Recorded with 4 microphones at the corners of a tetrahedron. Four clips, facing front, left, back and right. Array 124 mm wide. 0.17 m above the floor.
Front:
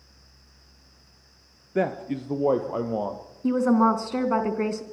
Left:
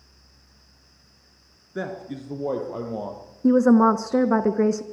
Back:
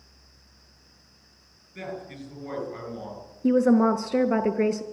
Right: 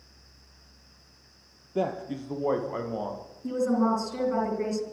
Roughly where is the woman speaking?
Left.